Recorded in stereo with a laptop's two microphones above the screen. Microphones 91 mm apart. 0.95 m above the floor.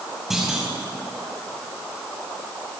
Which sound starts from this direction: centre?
A clunk, at 0.3 s.